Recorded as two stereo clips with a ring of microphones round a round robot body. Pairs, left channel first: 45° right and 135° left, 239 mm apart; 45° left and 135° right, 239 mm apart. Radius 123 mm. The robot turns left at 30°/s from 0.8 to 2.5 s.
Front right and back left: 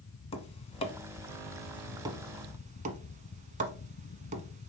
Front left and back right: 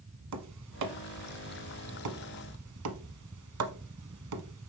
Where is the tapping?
110° right, 1.0 m; by 4.7 s 165° right, 1.0 m.